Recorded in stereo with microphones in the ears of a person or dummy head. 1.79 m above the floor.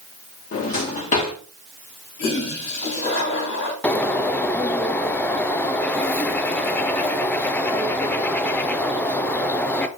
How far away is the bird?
About 0.7 m.